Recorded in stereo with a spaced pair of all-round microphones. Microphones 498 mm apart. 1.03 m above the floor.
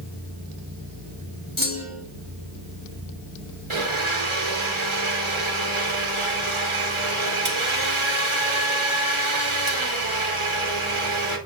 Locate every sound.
1.6 s a clunk: 25° left (ahead or behind), 2.5 m
3.7 s a blender: 70° right (ahead or behind), 1.5 m